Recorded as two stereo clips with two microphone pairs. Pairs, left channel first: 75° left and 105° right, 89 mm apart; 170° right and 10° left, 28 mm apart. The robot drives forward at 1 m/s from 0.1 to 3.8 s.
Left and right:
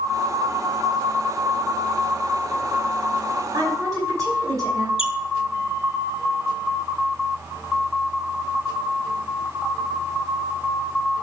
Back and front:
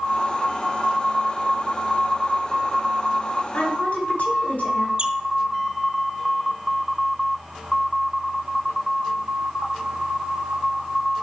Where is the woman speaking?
150° right, 4.5 m; by 4.9 s 155° right, 5 m.